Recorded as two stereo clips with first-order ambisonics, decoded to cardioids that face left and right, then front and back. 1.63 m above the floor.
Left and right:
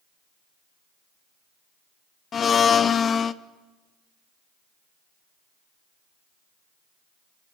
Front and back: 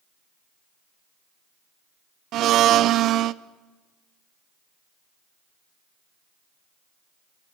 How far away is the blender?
About 0.5 m.